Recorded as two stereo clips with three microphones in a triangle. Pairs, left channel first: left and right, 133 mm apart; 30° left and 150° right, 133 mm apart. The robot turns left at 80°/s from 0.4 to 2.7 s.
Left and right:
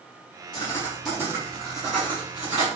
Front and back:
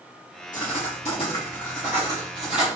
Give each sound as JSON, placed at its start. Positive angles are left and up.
{"t": 0.5, "sound": "writing", "azimuth_deg": 35, "distance_m": 4.0}